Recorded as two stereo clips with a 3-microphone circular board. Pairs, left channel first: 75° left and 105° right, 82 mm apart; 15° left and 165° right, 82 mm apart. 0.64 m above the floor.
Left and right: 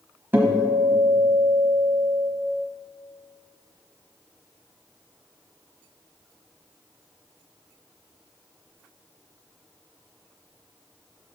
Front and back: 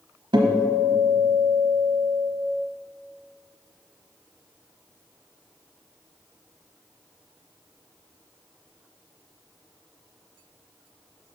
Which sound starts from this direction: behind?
A guitar, at 0.3 s.